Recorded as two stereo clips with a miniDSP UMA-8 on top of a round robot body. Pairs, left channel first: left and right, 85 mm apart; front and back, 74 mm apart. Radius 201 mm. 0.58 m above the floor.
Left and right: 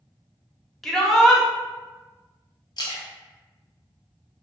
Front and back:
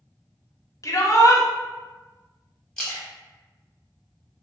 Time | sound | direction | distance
0.8 | a shout | 5° left | 1.2 m
2.8 | a splash | 75° left | 1.4 m